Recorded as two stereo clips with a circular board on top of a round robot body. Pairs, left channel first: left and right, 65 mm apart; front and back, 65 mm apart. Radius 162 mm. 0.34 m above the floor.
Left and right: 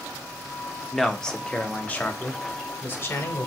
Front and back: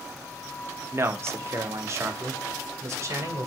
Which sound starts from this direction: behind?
A man speaking, at 0.9 s.